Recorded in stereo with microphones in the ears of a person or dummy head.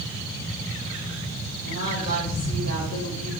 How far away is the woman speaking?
About 6 m.